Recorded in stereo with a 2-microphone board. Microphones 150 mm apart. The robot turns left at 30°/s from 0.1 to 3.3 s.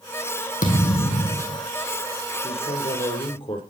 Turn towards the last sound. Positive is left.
turn(degrees=40)  # may be behind; listen again after turning